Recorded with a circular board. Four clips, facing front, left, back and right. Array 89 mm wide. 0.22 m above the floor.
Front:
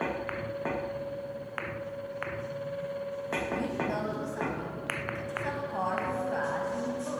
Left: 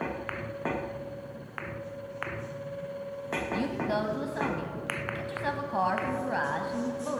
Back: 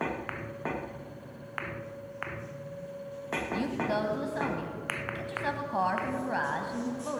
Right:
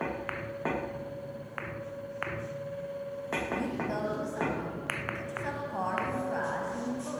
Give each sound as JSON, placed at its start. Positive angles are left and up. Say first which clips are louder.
{"t": 3.5, "sound": "a woman speaking", "louder": "left 5 dB, back 4 dB", "azimuth_deg": 130, "distance_m": 1.7}